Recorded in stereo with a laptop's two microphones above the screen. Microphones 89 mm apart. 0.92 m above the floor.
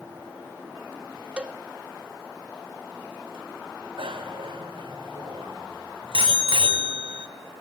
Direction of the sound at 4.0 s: 80° right.